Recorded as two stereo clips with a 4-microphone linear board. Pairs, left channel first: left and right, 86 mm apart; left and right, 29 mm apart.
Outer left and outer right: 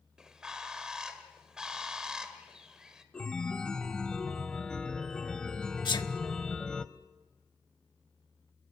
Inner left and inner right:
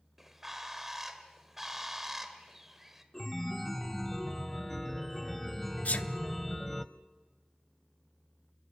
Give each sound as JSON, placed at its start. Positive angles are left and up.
{"t": 0.2, "sound": "a bird", "side_deg": -10, "distance_m": 1.6}
{"t": 3.1, "sound": "a chime", "side_deg": 10, "distance_m": 0.7}
{"t": 5.8, "sound": "a sneeze", "side_deg": 55, "distance_m": 1.2}